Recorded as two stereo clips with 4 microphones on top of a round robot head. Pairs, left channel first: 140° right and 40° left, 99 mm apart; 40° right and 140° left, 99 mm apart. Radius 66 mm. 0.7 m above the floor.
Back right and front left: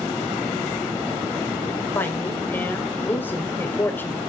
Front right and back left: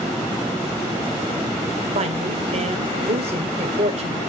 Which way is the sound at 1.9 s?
150° left.